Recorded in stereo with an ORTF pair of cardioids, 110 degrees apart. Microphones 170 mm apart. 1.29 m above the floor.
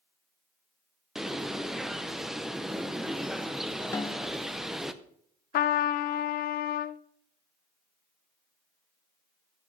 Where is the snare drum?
15° left, 0.8 m.